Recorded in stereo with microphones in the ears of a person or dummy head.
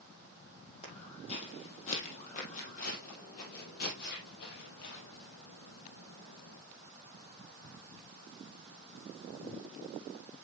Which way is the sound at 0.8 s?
35° left (ahead or behind).